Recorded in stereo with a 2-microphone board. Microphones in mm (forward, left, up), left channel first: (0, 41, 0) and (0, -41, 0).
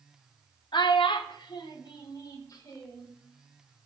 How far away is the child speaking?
About 0.7 m.